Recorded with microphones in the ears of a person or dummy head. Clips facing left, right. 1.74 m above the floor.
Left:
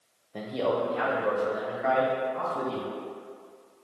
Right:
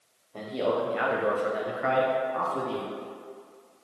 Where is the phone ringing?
I don't hear a phone ringing.